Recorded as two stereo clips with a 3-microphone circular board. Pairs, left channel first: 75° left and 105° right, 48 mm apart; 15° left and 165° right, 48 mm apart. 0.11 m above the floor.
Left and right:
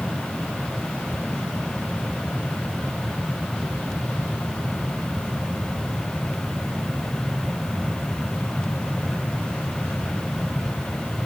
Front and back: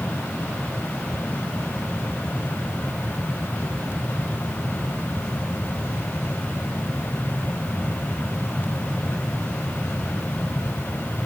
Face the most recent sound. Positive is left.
No sound to turn to.